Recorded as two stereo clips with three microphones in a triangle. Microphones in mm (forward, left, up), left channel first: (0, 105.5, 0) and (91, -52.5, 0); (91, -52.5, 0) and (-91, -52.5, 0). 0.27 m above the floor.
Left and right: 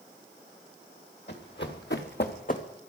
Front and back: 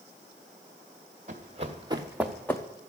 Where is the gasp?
I don't hear a gasp.